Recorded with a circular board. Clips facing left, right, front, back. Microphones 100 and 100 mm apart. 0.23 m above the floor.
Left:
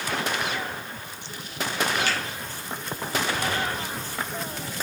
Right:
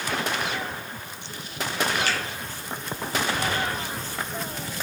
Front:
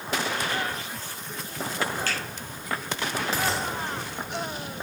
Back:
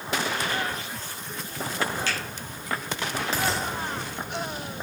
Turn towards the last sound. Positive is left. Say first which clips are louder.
# even, even
turn(degrees=-45)